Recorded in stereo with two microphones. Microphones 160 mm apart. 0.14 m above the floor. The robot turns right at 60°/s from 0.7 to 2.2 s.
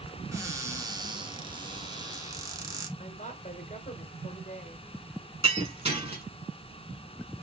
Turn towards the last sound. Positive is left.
turn(degrees=-40)  # may be behind; listen again after turning